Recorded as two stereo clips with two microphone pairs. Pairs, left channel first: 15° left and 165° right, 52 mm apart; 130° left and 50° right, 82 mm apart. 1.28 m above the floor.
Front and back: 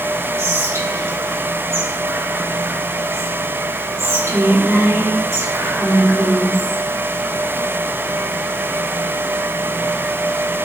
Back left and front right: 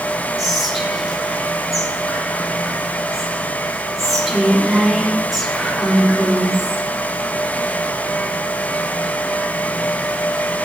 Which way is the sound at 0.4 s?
135° right.